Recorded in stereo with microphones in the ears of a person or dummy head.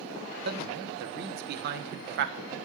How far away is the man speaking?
About 1.2 m.